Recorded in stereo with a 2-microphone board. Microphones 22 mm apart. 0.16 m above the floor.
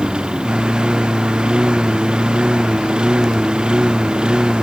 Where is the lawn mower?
45° right (ahead or behind).